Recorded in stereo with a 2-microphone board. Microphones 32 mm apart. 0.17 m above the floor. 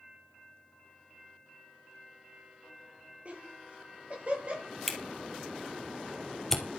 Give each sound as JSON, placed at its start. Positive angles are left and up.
{"t": 3.2, "sound": "laughter", "side_deg": -40, "distance_m": 5.0}
{"t": 4.9, "sound": "a camera shutter", "side_deg": 5, "distance_m": 3.0}